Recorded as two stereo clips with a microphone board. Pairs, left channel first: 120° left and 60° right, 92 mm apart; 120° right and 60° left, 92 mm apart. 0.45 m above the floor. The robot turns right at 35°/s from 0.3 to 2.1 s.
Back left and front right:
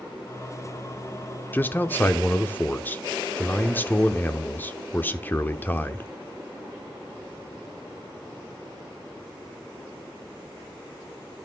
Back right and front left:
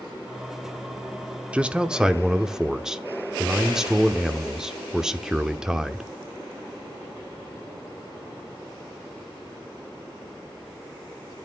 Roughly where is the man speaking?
Left.